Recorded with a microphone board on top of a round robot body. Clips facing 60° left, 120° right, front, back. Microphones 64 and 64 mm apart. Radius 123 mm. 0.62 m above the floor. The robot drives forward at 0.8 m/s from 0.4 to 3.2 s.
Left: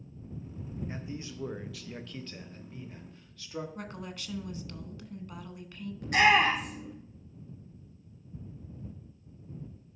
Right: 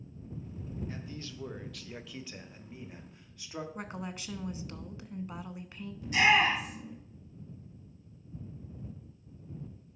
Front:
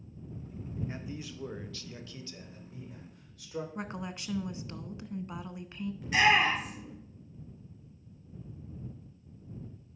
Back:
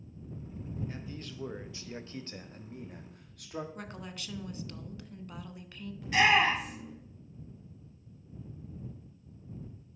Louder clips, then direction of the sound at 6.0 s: Left 2 dB, even; 85° left.